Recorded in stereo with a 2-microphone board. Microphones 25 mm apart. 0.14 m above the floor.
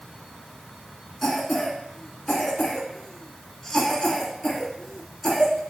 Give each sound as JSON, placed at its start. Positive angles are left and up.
{"t": 1.2, "sound": "a cough", "side_deg": 10, "distance_m": 1.6}